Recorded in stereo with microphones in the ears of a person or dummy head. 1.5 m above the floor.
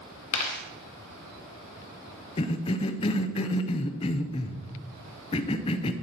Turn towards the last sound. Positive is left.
turn(degrees=25)  # may be behind; listen again after turning